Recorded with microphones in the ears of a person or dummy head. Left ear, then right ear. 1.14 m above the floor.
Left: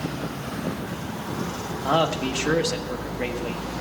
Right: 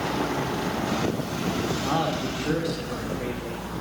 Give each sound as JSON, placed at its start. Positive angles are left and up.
{"t": 1.8, "sound": "a man speaking", "side_deg": 70, "distance_m": 1.3}